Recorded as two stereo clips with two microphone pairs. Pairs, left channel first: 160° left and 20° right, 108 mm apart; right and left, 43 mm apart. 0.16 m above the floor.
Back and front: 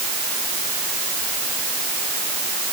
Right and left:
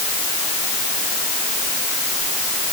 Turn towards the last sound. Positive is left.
No sound to turn to.